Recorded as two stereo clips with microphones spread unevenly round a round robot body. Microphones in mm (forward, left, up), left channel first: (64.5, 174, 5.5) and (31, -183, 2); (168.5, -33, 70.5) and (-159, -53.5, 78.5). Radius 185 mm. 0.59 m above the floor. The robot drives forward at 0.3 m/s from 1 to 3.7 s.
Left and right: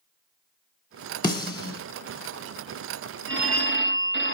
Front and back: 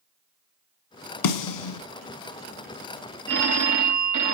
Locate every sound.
1.2 s a snare drum: 5° left, 1.3 m
3.3 s a phone ringing: 145° right, 0.9 m; by 4.3 s 150° right, 0.9 m